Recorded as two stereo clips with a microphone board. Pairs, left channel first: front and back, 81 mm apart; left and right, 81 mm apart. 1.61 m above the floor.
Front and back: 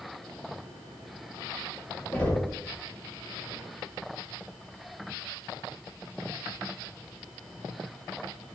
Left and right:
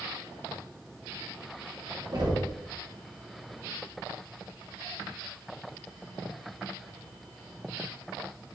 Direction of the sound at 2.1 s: 75° right.